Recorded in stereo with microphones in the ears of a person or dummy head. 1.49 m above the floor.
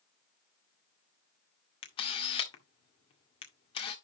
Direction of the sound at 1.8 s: 35° left (ahead or behind).